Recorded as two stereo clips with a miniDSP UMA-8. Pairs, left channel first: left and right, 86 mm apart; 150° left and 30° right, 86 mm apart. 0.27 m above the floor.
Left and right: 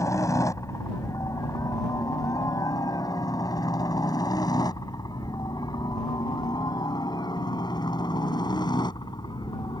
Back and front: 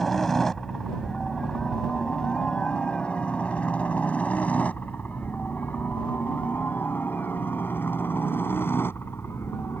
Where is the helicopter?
65° left; by 9.8 s 95° left.